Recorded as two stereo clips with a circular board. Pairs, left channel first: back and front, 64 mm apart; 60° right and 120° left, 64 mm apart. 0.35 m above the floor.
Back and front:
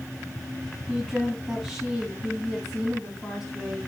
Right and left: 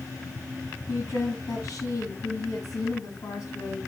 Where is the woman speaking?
90° right, 6 m.